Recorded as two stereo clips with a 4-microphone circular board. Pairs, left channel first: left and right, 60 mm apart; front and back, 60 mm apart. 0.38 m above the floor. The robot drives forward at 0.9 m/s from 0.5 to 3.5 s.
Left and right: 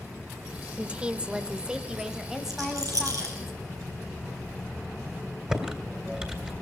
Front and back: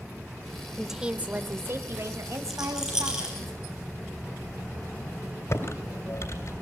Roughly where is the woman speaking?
Right.